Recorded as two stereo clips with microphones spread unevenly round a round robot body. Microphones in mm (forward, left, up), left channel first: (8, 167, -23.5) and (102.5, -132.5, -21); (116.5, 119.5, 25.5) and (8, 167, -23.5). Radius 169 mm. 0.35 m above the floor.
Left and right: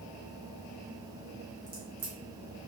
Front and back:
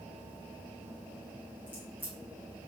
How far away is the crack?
About 1.3 m.